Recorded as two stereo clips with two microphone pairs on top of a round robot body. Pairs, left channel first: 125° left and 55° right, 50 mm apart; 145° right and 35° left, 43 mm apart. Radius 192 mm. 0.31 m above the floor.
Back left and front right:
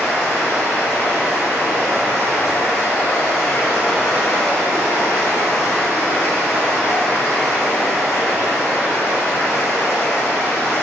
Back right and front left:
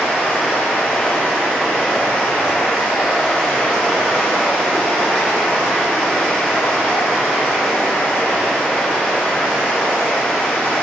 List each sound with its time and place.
0.0 s running water: 140° left, 1.8 m